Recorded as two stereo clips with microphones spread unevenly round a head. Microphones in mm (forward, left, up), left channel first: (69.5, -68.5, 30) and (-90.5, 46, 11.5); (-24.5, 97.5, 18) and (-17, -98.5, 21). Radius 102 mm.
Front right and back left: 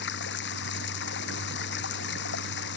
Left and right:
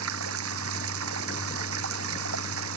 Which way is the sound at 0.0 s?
65° right.